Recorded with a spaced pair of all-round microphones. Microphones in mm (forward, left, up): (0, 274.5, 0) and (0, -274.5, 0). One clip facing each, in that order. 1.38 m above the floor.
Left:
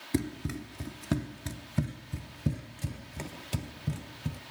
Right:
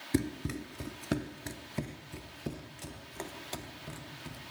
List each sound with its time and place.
0.1 s running footsteps: centre (ahead or behind), 1.5 m; by 4.4 s 55° left (ahead or behind), 2.5 m